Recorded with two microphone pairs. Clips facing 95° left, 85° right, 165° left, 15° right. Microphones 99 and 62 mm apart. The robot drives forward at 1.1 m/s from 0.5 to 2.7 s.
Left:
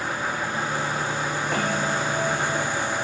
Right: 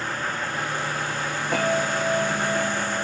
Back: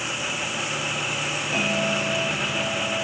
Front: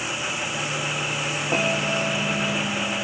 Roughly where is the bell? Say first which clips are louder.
Right 4 dB, front 1 dB; ahead.